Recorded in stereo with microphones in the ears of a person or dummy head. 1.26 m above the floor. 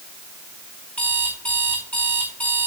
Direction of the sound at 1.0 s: 10° left (ahead or behind).